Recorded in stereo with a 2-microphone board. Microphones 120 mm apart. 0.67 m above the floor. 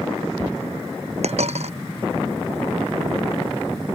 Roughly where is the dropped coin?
Right.